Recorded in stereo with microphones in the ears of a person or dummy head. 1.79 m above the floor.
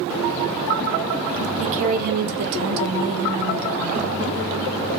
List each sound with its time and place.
1.6 s a woman speaking: 40° right (ahead or behind), 0.8 m; by 4.2 s 35° right (ahead or behind), 1.1 m